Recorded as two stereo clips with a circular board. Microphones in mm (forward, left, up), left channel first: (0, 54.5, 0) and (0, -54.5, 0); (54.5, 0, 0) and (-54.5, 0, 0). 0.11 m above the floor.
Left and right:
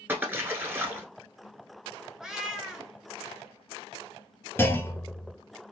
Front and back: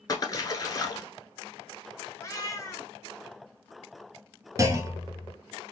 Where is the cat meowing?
10° right, 0.7 m.